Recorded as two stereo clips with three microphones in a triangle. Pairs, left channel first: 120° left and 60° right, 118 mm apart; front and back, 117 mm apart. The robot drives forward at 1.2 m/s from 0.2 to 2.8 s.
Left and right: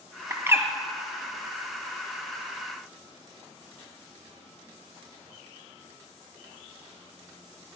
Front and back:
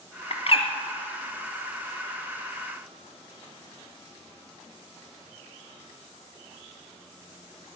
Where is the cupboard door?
I don't hear a cupboard door.